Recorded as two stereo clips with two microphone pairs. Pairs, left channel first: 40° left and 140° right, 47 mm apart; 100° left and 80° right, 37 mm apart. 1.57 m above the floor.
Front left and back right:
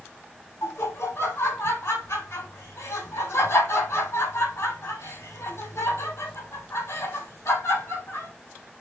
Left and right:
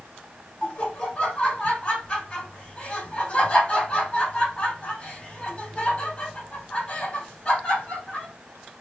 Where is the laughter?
40° left, 5 m.